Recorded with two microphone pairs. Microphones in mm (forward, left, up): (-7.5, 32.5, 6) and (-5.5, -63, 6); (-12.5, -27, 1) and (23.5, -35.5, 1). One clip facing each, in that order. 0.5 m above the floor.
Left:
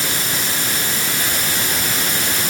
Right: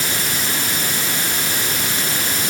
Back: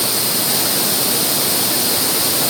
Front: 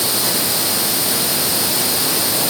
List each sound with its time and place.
Only background noise.